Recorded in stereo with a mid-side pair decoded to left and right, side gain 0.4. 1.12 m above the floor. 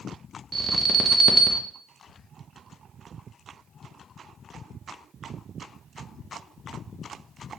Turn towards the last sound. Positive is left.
turn(degrees=-35)